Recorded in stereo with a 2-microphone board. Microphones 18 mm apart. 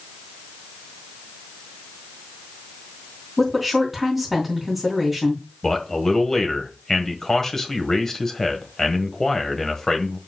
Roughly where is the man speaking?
Left.